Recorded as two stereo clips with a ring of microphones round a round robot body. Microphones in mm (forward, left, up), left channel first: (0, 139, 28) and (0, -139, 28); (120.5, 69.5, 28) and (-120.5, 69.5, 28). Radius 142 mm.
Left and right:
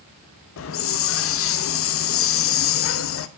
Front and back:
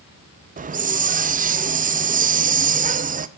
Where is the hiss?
125° left, 0.6 m.